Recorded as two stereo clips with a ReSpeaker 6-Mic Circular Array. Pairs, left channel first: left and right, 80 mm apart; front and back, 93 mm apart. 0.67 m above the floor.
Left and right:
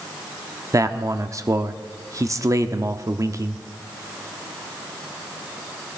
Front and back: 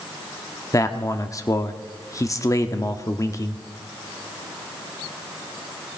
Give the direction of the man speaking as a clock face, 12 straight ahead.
2 o'clock.